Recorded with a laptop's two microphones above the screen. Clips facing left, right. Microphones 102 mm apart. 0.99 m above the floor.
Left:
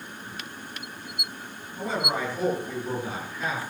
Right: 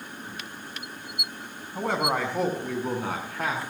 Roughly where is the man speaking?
Right.